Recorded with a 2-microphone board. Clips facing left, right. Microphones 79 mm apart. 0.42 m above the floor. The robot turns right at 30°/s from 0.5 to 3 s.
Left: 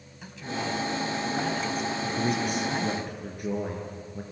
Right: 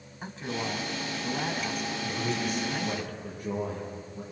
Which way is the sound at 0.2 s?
45° right.